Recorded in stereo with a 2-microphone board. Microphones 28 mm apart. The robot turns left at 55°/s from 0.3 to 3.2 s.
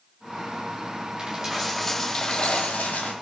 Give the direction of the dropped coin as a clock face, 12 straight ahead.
5 o'clock.